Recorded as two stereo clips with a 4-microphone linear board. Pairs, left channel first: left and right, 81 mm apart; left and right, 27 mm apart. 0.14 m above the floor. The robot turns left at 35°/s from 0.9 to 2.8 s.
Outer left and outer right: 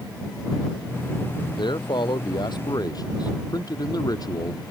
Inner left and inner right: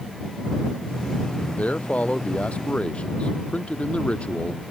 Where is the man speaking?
100° left; by 4.6 s 55° left.